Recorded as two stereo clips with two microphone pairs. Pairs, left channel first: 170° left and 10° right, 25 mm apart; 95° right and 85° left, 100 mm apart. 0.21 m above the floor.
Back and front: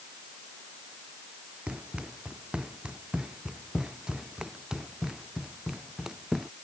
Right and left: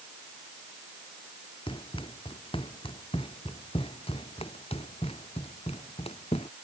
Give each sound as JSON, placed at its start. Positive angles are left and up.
{"t": 1.7, "sound": "running footsteps", "azimuth_deg": -60}